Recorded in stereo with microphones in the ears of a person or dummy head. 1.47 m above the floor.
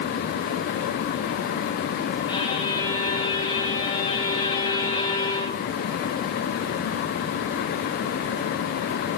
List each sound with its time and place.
2.3 s a violin: 20° left (ahead or behind), 0.9 m